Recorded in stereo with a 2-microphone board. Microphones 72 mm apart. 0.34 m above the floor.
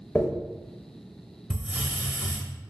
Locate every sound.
0.1 s a dropped coin: 20° left (ahead or behind), 0.5 m
1.5 s a hiss: 15° right (ahead or behind), 0.6 m